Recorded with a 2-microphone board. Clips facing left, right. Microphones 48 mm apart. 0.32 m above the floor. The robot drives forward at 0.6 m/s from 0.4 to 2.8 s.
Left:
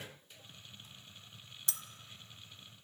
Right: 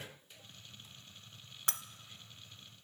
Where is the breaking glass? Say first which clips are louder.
Right 7 dB; 55° right (ahead or behind), 0.6 m; by 1.8 s 50° right (ahead or behind), 0.7 m.